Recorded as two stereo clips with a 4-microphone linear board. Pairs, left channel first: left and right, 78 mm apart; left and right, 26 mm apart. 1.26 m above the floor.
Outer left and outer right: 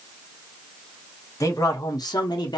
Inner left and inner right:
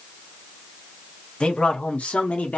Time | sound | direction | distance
1.4 | a man speaking | 40° left (ahead or behind) | 1.0 m